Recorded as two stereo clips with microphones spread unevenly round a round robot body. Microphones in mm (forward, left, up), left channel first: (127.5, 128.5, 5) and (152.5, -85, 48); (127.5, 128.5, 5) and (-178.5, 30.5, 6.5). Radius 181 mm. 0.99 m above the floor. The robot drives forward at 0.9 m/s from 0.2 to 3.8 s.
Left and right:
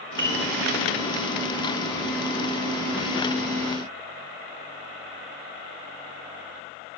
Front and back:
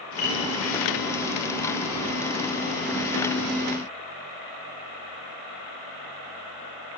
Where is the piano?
55° right, 5 m.